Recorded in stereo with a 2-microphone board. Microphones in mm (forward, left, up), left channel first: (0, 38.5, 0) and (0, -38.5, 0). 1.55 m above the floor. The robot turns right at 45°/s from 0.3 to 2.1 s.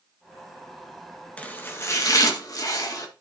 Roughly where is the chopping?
Ahead.